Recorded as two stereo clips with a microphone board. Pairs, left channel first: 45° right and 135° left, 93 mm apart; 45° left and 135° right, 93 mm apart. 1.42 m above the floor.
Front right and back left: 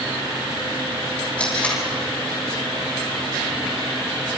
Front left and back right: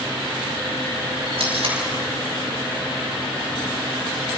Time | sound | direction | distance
1.4 | tape being pulled | 125° right | 8.5 m